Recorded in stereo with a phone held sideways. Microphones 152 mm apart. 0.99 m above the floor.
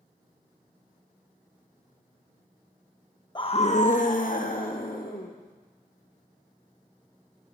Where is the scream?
30° left (ahead or behind), 0.5 m; by 5.3 s 70° left (ahead or behind), 2.5 m.